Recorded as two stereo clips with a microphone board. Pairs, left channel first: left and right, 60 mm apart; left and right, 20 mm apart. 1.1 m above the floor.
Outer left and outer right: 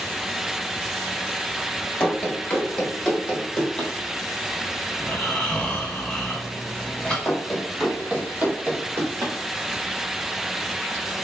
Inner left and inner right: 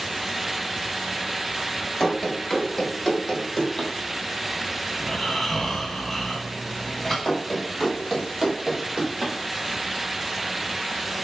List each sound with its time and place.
2.0 s running footsteps: 15° left (ahead or behind), 1.1 m; by 3.9 s 10° left (ahead or behind), 1.9 m
5.0 s snoring: 15° left (ahead or behind), 1.0 m
7.2 s running footsteps: 25° left (ahead or behind), 1.4 m; by 9.3 s 55° right (ahead or behind), 1.9 m